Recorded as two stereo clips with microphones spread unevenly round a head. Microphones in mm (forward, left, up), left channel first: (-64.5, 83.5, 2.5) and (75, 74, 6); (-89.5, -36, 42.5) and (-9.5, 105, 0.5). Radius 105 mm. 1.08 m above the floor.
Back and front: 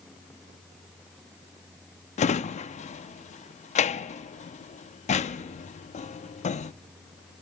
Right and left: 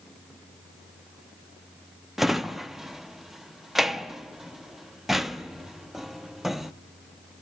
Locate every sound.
2.2 s a drawer: 160° left, 0.6 m